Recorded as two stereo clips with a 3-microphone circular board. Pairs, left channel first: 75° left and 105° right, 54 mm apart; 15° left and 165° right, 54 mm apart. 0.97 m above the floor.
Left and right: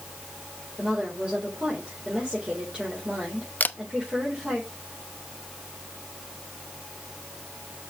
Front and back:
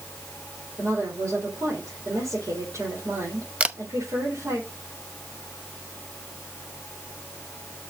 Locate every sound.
0.8 s a woman speaking: 175° right, 4 m
3.6 s a camera shutter: 130° left, 0.7 m